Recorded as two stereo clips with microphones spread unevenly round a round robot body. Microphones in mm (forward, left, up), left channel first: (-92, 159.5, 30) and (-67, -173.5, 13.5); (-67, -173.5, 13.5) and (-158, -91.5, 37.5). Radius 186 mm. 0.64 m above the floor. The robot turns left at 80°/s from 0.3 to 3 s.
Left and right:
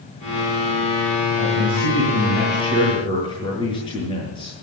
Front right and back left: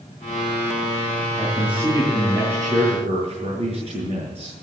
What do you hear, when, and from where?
1.4 s a man speaking: 60° right, 8.5 m; by 4.6 s 170° left, 8.5 m